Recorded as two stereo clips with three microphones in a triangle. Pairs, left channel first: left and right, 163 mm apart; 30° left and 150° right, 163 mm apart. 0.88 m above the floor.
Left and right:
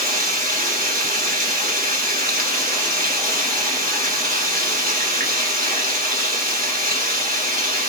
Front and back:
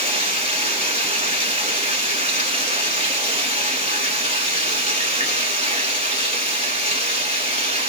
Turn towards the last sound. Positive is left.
turn(degrees=-110)